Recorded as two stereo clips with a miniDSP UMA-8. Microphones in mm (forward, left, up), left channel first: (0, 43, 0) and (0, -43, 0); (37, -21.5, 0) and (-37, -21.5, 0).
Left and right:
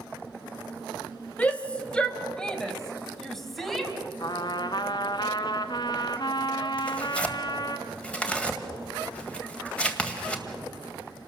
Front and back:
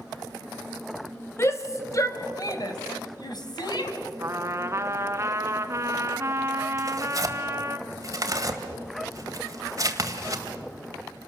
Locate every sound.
1.4 s a shout: 25° left, 1.8 m; by 3.9 s straight ahead, 3 m
4.2 s a trumpet: 125° left, 1.0 m
6.8 s tearing paper: 160° left, 1.8 m